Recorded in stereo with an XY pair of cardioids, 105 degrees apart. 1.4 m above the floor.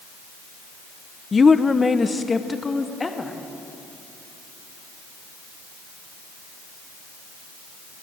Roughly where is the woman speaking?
Ahead left.